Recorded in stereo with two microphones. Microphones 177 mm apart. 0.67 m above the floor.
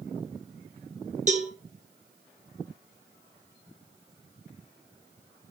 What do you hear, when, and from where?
1.3 s a cowbell: 45° right (ahead or behind), 0.5 m